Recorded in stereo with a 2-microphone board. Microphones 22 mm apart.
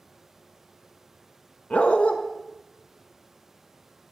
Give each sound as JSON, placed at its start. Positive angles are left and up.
{"t": 1.7, "sound": "a dog barking", "side_deg": 80, "distance_m": 0.9}